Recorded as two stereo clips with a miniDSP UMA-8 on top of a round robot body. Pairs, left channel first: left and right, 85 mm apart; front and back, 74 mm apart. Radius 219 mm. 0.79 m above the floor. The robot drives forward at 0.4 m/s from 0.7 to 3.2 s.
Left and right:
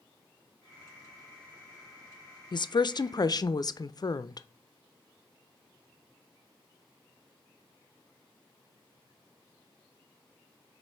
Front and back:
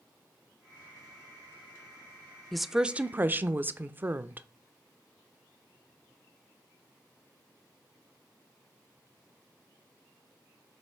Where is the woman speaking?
90° left, 0.6 m; by 4.5 s 120° left, 0.7 m.